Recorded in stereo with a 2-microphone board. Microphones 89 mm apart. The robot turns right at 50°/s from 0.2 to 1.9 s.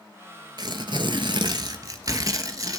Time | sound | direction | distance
0.6 | tearing paper | 115° right | 0.9 m